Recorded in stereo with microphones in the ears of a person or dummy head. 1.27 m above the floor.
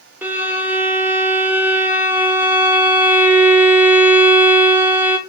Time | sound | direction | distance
0.2 | a violin | 10° right (ahead or behind) | 0.7 m